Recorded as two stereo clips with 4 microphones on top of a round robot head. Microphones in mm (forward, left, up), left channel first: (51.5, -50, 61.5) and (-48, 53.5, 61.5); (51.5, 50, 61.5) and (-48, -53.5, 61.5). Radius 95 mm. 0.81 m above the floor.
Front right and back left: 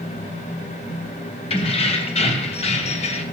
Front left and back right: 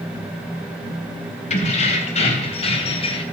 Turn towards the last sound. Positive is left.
turn(degrees=-5)